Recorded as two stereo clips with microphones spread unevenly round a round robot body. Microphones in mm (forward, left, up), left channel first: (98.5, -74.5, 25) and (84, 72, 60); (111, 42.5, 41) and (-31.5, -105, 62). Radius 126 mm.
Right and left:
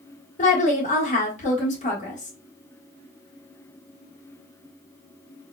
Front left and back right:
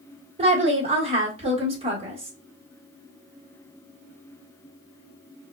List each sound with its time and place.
0.4 s a woman speaking: 70° right, 1.4 m